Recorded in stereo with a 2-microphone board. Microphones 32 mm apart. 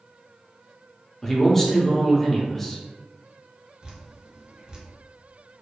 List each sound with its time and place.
1.2 s a man speaking: 10° left (ahead or behind), 0.6 m
3.8 s dripping: 25° right (ahead or behind), 0.6 m